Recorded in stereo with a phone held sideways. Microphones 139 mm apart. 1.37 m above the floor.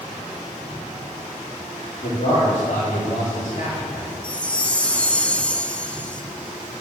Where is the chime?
10° left (ahead or behind), 0.6 m.